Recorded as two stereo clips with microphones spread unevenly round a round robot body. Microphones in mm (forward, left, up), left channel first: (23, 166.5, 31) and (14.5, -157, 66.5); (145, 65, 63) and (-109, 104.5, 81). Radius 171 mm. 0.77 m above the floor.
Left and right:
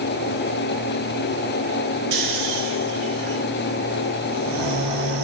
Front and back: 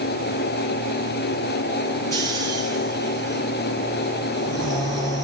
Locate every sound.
2.1 s snoring: 90° right, 2 m